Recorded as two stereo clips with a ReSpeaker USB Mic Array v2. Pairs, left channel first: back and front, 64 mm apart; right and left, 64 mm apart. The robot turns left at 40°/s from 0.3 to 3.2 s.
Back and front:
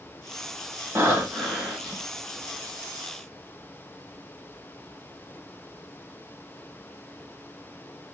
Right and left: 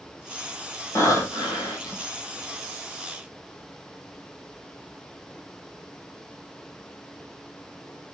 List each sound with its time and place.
0.9 s breathing: 55° right, 2.0 m; by 2.0 s 95° right, 2.0 m